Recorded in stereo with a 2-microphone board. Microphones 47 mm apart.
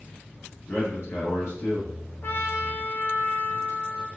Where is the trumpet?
55° left (ahead or behind), 0.8 m.